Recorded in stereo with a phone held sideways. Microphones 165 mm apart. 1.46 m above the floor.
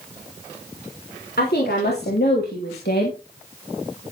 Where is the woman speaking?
85° left, 3.5 m.